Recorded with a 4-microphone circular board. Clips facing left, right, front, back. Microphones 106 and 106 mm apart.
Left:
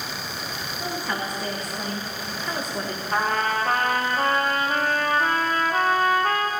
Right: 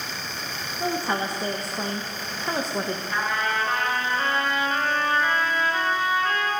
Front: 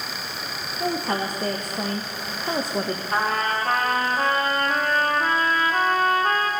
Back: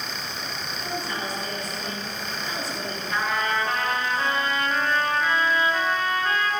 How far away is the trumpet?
About 1.2 m.